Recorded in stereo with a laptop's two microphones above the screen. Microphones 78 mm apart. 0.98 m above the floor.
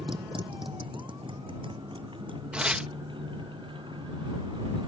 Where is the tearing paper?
15° right (ahead or behind).